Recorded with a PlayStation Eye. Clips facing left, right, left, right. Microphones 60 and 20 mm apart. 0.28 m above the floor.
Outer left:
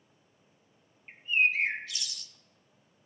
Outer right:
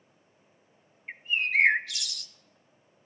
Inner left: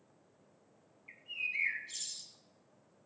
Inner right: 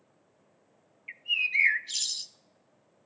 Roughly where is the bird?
Right.